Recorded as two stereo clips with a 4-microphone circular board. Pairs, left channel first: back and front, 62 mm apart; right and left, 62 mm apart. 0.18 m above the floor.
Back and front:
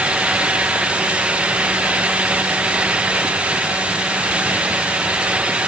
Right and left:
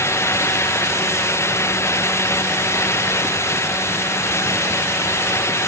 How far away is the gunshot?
I don't hear a gunshot.